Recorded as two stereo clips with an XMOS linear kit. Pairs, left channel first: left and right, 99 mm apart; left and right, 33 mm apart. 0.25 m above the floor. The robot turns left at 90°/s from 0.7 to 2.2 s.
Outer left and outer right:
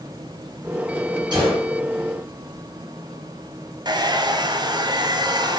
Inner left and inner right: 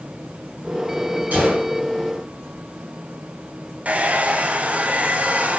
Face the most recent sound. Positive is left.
turn(degrees=-45)  # may be behind; listen again after turning